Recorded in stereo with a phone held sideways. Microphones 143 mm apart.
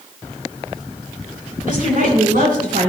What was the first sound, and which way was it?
A woman speaking, 75° right (ahead or behind).